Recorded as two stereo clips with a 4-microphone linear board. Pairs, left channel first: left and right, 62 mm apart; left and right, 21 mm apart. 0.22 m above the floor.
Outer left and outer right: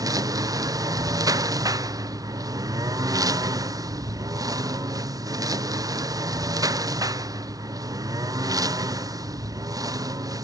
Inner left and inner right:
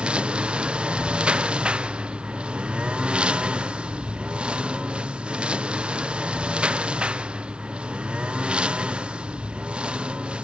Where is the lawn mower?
75° right (ahead or behind).